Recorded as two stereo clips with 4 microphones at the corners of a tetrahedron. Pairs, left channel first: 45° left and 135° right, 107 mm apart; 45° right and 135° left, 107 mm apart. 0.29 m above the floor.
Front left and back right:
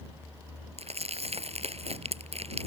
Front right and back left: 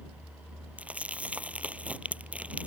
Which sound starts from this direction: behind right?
Crumpling, at 0.8 s.